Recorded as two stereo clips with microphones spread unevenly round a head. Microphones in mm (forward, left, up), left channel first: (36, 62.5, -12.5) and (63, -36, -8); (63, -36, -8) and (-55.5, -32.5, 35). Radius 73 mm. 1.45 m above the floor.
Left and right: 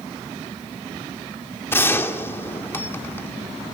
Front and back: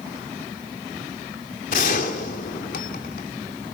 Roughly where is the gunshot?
Ahead left.